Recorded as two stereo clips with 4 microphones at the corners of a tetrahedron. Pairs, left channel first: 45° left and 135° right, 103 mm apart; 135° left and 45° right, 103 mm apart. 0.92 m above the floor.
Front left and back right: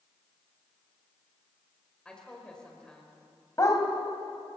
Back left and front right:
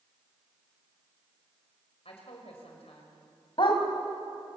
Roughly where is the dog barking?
Left.